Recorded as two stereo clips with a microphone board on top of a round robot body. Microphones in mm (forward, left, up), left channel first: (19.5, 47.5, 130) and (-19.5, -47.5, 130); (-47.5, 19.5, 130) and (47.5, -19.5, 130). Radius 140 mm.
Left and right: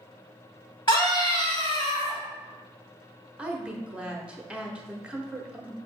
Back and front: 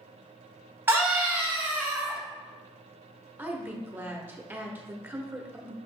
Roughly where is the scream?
Ahead left.